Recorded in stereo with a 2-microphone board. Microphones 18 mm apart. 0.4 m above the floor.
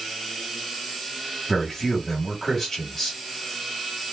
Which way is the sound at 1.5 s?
20° left (ahead or behind).